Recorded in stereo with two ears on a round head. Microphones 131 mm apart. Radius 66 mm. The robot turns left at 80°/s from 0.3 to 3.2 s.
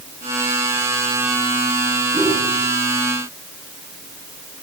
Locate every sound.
2.1 s a whoosh: 15° right (ahead or behind), 8.5 m; by 2.4 s 35° right (ahead or behind), 8.5 m